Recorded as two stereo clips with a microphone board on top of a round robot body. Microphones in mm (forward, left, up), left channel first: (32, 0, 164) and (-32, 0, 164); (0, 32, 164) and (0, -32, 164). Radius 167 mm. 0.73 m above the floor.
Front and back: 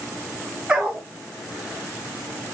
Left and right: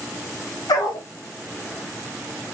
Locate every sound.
0.7 s a dog barking: 105° left, 0.5 m